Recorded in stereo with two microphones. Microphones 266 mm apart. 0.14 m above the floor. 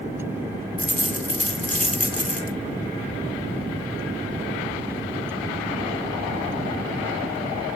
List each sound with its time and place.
0.8 s a dropped coin: 30° left (ahead or behind), 0.7 m